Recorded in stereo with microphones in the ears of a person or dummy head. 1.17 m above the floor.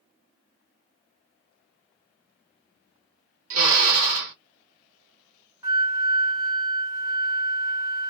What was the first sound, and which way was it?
A drill, 70° right (ahead or behind).